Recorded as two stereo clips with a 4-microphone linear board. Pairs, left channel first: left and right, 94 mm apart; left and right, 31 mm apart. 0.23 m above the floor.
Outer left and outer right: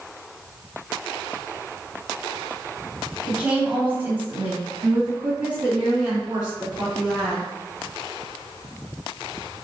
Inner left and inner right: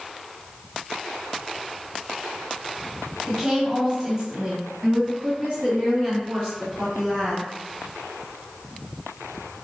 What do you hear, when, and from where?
3.2 s a woman speaking: 10° right (ahead or behind), 1.1 m; by 7.5 s 25° right (ahead or behind), 2.5 m